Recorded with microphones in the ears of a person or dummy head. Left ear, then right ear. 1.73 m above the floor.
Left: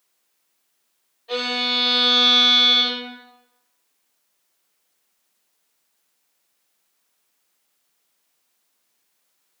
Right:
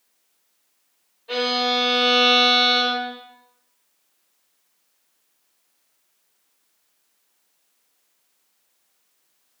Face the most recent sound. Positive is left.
turn(degrees=0)  # may be behind; listen again after turning